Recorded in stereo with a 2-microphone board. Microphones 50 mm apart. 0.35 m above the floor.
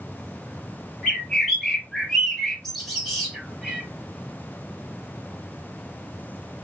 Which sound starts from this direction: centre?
A bird, at 1.0 s.